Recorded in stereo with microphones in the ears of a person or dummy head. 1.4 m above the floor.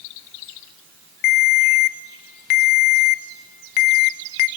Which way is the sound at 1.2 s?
45° left (ahead or behind).